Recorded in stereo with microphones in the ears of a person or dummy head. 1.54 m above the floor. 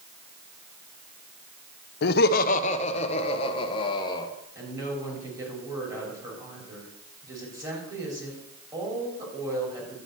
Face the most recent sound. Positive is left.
turn(degrees=-15)  # may be behind; listen again after turning